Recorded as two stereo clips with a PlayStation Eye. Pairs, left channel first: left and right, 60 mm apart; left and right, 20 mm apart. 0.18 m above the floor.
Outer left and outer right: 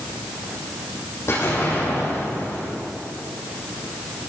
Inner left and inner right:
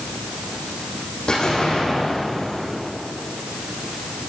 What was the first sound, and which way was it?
An explosion, 45° left (ahead or behind).